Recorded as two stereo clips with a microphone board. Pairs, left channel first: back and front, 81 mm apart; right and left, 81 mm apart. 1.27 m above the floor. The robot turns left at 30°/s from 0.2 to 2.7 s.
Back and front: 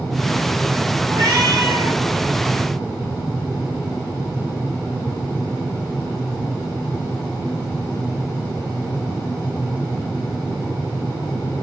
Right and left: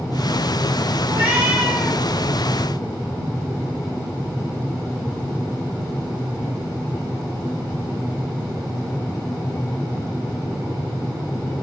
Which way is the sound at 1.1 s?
35° left.